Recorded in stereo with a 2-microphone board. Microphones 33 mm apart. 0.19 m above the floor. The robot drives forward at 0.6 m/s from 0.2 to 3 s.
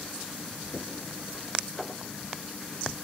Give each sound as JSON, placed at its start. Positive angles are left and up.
{"t": 0.7, "sound": "knocking", "side_deg": 50, "distance_m": 3.0}